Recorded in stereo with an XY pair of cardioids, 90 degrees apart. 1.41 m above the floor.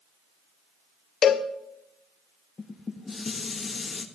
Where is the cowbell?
65° left, 0.6 m.